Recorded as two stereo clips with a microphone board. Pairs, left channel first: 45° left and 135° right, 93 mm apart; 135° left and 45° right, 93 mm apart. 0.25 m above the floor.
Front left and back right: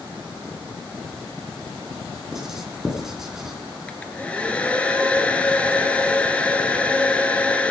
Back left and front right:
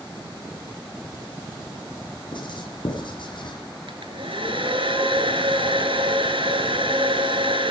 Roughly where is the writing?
Behind left.